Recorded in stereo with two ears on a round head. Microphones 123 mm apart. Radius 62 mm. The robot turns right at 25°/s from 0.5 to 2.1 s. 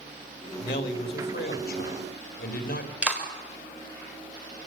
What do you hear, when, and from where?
0.6 s a man speaking: 65° left, 3 m; by 2.9 s 100° left, 3 m
3.0 s a clap: 10° right (ahead or behind), 4.5 m